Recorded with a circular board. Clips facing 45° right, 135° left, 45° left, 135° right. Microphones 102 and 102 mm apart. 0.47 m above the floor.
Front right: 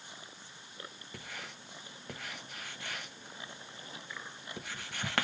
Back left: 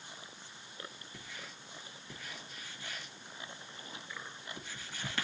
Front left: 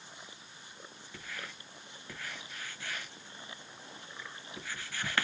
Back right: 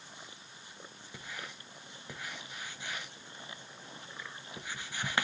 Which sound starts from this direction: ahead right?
Writing, at 1.1 s.